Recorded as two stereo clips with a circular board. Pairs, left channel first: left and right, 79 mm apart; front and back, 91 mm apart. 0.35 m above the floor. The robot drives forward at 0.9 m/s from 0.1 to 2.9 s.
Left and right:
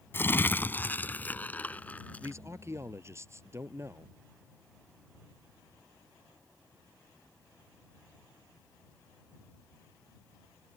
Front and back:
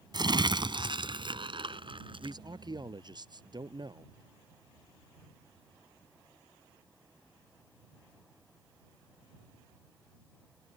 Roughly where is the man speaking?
Behind right.